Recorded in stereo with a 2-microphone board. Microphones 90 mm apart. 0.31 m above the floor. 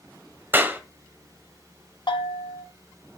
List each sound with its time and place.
0.5 s a clap: 20° right (ahead or behind), 1.5 m
2.1 s a bell: 60° left (ahead or behind), 1.9 m